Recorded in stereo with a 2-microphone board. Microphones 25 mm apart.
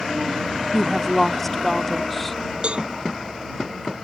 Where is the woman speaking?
10° left (ahead or behind).